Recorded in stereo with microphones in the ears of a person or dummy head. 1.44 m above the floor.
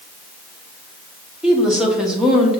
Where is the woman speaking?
Centre (ahead or behind), 0.8 m.